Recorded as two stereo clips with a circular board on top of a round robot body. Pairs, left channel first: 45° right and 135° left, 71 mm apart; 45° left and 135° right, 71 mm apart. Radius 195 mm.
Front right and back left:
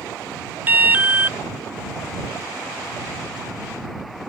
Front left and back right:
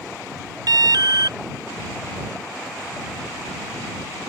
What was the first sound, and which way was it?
An alarm, 160° right.